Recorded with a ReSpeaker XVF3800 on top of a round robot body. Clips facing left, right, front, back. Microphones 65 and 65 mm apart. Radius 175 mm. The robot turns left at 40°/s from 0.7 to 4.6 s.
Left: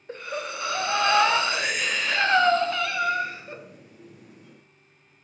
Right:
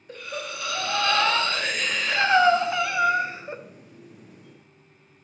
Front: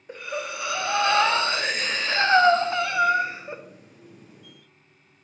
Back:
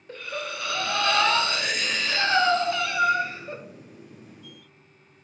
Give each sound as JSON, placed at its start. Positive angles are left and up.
{"t": 0.1, "sound": "breathing", "azimuth_deg": 55, "distance_m": 0.5}